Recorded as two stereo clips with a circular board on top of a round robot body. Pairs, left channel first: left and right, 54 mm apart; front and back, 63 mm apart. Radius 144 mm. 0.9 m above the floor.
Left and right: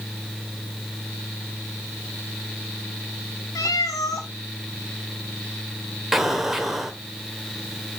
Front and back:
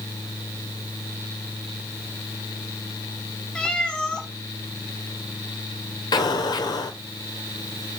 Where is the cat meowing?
80° left, 1.3 m.